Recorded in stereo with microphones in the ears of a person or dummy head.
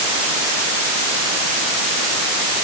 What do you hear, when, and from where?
Only background noise.